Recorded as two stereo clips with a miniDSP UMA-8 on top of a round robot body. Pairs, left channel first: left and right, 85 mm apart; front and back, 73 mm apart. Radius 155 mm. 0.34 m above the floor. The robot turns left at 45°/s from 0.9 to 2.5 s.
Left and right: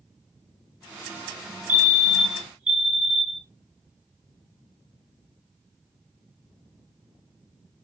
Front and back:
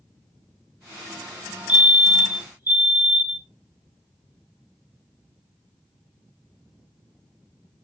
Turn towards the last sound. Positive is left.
turn(degrees=-160)